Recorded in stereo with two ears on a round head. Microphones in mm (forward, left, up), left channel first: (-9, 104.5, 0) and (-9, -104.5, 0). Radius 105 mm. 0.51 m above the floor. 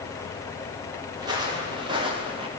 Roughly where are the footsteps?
Centre.